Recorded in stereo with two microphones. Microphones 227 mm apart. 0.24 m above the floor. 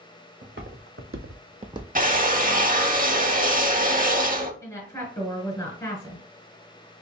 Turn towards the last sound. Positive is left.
turn(degrees=10)  # may be behind; listen again after turning